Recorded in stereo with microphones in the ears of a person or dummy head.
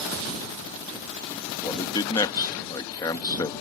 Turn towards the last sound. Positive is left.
turn(degrees=15)  # may be behind; listen again after turning